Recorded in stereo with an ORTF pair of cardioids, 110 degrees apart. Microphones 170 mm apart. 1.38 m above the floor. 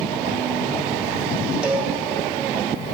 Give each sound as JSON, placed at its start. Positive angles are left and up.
{"t": 1.6, "sound": "a cowbell", "azimuth_deg": -5, "distance_m": 2.5}